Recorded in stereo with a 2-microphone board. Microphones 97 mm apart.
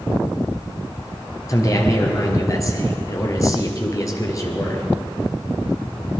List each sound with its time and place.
1.5 s a man speaking: 35° left (ahead or behind), 2.5 m